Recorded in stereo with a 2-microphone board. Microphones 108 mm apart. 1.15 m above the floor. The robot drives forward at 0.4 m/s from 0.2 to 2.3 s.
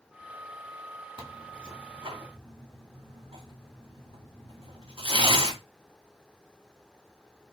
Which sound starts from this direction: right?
Tearing paper, at 1.2 s.